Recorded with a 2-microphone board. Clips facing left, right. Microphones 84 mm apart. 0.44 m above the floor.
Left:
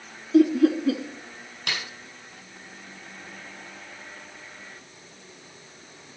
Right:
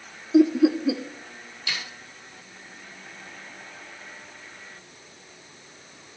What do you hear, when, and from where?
0.3 s laughter: 15° right (ahead or behind), 0.7 m
1.7 s a snare drum: 60° left (ahead or behind), 3.5 m